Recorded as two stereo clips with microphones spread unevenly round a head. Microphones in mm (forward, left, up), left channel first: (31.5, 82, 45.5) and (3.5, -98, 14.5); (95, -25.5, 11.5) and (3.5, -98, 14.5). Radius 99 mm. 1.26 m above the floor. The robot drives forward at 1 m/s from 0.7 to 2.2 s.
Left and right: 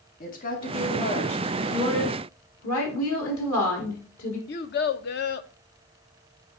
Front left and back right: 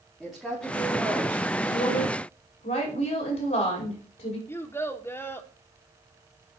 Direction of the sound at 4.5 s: 120° left.